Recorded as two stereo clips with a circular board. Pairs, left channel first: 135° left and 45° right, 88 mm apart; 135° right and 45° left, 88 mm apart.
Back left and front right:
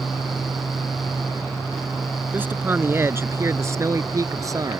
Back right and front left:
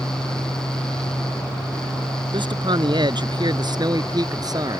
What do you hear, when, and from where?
2.3 s a man speaking: 25° left; by 4.8 s straight ahead